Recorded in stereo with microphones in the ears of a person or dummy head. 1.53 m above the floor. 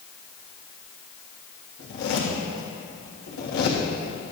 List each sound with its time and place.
1.8 s a zipper: 60° left (ahead or behind), 1.6 m